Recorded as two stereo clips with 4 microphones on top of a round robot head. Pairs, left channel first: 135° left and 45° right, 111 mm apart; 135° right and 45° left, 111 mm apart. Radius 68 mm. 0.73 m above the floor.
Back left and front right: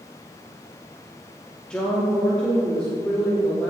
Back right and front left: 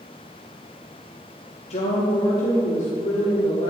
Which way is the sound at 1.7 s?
140° right.